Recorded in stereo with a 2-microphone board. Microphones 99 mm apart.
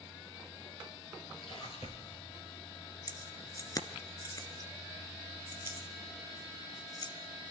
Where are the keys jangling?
40° left (ahead or behind), 1.5 m.